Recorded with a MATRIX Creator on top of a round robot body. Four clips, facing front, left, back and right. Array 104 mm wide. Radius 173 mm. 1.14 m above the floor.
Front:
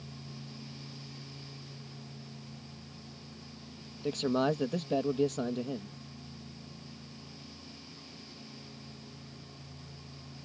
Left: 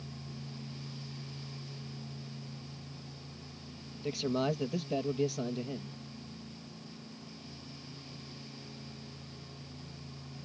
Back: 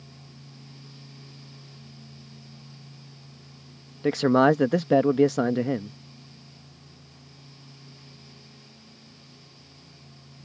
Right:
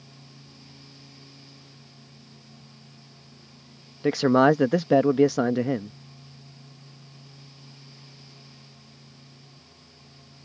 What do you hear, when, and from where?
4.0 s a man speaking: 130° right